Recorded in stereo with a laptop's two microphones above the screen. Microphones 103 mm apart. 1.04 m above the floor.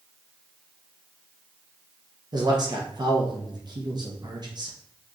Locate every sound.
2.3 s a man speaking: 45° right (ahead or behind), 0.8 m